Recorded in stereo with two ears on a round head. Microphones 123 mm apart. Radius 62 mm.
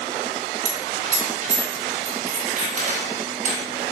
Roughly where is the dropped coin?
Right.